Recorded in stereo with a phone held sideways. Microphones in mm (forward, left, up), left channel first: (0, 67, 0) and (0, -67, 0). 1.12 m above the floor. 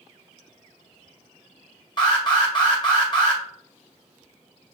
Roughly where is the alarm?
Left.